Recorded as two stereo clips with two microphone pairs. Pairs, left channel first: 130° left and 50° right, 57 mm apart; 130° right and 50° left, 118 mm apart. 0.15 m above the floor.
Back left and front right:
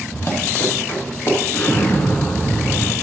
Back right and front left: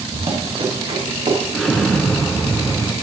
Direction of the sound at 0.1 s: 85° left.